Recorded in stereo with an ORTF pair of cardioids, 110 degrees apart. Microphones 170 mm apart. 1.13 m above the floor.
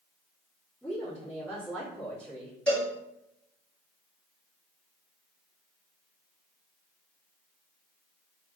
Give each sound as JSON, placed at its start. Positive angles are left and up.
{"t": 0.8, "sound": "a woman speaking", "azimuth_deg": 5, "distance_m": 1.6}
{"t": 2.7, "sound": "a cowbell", "azimuth_deg": 5, "distance_m": 1.5}